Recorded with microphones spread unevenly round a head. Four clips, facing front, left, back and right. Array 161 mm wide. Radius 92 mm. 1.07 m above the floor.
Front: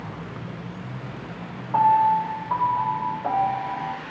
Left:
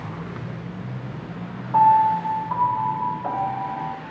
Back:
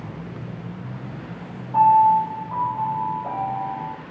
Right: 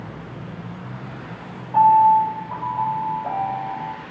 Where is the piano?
15° left, 3 m.